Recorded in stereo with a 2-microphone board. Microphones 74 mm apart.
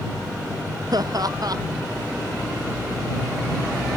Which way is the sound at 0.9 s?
60° right (ahead or behind).